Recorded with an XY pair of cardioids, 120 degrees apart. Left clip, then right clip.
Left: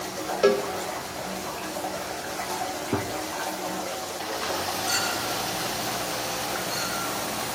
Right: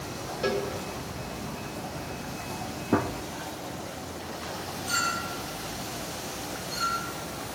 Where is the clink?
50° left, 8.5 m.